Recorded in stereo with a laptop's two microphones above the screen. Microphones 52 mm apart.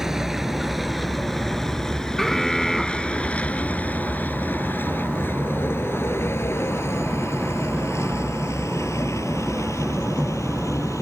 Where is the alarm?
5° left (ahead or behind).